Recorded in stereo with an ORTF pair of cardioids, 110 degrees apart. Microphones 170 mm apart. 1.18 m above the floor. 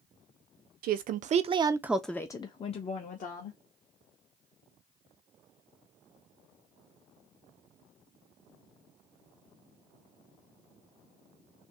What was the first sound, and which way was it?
A woman speaking, 60° right.